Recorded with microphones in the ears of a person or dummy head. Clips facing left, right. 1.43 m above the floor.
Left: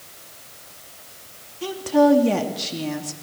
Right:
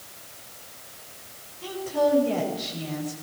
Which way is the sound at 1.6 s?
85° left.